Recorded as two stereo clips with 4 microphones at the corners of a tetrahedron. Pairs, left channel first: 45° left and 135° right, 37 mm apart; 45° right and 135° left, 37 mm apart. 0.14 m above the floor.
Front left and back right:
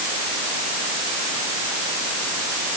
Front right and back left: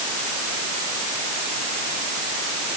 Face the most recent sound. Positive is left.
No sound to turn to.